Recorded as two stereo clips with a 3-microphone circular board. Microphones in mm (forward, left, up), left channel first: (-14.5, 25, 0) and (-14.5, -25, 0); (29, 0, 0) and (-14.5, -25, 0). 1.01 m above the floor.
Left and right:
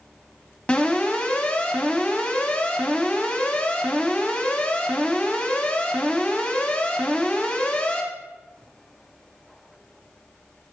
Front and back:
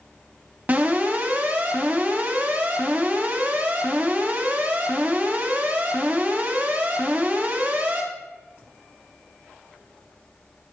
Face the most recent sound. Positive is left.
turn(degrees=150)